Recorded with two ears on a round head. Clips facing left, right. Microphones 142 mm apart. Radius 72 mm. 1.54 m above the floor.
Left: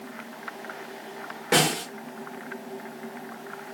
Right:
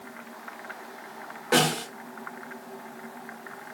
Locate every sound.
1.5 s a snare drum: 20° left (ahead or behind), 1.0 m